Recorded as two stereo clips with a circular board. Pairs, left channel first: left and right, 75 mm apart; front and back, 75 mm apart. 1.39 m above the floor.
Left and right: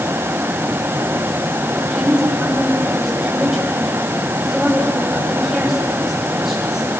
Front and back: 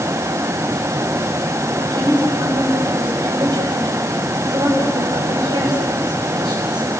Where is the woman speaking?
175° right, 9 m.